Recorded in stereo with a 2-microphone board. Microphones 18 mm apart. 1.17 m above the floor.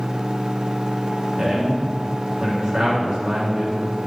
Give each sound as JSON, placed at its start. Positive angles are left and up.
{"t": 1.4, "sound": "a man speaking", "side_deg": -45, "distance_m": 3.0}